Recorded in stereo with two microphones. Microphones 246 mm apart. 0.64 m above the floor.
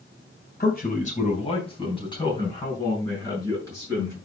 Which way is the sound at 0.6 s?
40° left (ahead or behind).